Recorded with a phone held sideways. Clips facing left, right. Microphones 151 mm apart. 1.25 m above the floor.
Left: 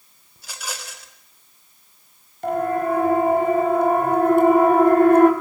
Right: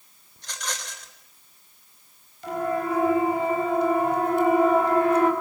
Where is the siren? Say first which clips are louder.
Left 5 dB; 50° left (ahead or behind), 8.5 m; by 5.3 s 55° left (ahead or behind), 4.5 m.